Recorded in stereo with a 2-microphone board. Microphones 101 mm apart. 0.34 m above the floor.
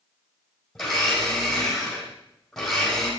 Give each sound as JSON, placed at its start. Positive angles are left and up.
{"t": 0.8, "sound": "a blender", "side_deg": 5, "distance_m": 3.5}